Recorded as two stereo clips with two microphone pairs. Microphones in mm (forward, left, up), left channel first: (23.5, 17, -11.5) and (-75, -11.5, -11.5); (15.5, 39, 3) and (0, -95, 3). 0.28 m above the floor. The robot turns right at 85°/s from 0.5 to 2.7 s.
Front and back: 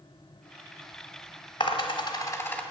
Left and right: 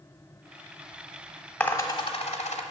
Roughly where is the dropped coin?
Ahead.